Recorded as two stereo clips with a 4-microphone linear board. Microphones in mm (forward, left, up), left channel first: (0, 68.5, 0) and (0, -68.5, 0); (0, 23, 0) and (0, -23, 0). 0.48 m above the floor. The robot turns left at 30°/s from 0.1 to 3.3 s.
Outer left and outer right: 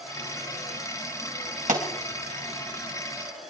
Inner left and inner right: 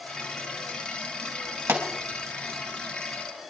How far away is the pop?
About 3.5 m.